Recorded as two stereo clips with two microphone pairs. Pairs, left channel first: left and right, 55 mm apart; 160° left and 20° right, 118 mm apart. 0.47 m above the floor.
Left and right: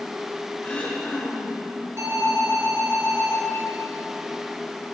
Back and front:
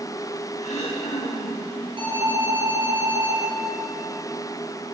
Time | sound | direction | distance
0.6 | throat clearing | 155° left | 7 m
2.0 | an alarm | 60° right | 8.5 m